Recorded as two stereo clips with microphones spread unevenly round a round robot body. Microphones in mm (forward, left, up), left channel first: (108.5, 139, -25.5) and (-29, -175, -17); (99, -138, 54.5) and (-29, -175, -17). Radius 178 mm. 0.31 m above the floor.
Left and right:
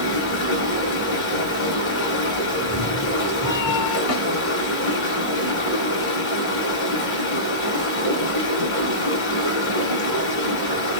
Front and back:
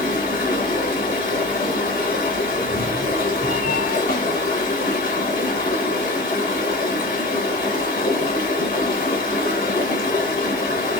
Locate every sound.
0.0 s running water: 15° left, 1.9 m
2.5 s a cat meowing: 15° left, 1.5 m
4.1 s a snare drum: 20° left, 2 m